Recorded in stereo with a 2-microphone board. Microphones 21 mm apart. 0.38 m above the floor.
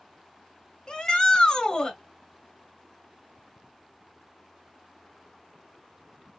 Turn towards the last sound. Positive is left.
turn(degrees=35)  # may be behind; listen again after turning